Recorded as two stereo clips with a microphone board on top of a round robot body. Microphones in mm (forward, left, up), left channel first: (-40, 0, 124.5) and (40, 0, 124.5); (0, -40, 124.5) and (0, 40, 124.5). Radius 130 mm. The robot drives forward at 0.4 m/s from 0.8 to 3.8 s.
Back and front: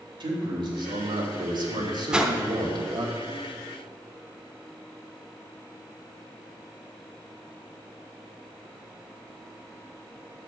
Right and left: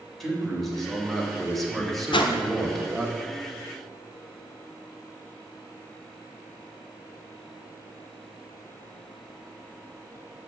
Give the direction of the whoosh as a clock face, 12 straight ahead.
3 o'clock.